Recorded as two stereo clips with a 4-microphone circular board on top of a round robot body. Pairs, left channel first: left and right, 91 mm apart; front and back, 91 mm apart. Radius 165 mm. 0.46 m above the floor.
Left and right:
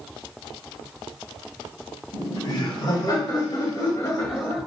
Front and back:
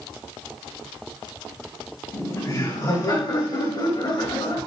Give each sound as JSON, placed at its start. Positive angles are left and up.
{"t": 2.1, "sound": "laughter", "azimuth_deg": 50, "distance_m": 3.5}